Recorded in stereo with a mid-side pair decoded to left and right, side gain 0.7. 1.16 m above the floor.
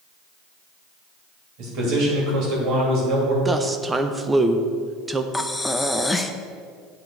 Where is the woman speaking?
15° right, 0.6 m.